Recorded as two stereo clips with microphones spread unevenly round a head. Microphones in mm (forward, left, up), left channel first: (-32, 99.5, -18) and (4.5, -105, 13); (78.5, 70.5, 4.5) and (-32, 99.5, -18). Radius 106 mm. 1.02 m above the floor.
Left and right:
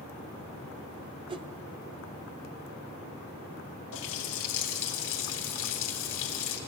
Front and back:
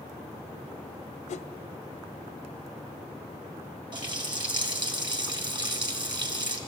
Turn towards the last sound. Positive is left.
turn(degrees=120)